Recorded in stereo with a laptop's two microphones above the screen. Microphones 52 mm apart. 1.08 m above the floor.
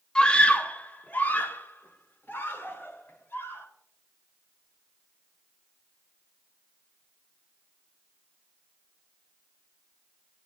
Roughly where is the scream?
Centre.